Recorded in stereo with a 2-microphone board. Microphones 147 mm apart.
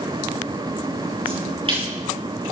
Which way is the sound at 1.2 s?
40° right (ahead or behind).